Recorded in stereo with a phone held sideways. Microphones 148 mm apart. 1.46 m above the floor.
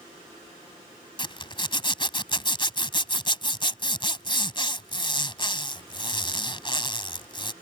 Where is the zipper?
35° left (ahead or behind).